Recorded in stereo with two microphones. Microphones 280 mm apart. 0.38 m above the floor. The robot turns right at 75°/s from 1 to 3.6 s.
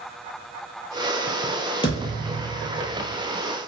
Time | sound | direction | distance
1.8 | a thud | 160° left | 1.2 m